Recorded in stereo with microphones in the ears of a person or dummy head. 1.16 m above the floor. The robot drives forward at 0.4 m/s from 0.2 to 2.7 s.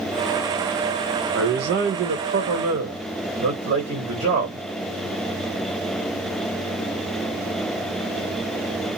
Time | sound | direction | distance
1.3 | a man speaking | 60° right (ahead or behind) | 0.8 m